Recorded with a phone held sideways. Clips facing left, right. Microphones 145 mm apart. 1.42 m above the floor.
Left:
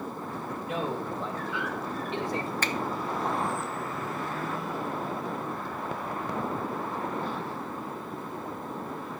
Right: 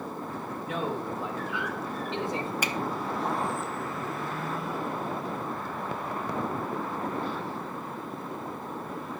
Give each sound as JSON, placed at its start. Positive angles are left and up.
{"t": 0.6, "sound": "a man speaking", "side_deg": 5, "distance_m": 1.7}
{"t": 2.6, "sound": "a finger snap", "side_deg": -10, "distance_m": 0.7}